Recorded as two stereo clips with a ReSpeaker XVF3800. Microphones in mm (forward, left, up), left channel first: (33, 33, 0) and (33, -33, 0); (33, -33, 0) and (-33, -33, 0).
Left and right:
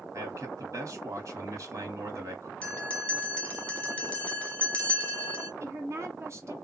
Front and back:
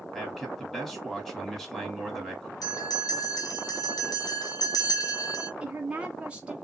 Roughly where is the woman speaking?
Behind right.